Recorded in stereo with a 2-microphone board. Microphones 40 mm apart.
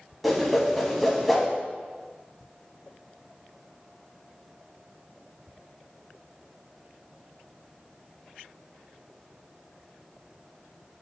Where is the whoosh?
5° right (ahead or behind), 0.7 m.